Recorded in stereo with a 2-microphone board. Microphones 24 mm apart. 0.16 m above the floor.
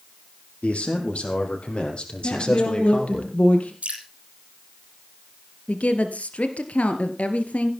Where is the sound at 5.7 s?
65° left (ahead or behind), 2.5 m.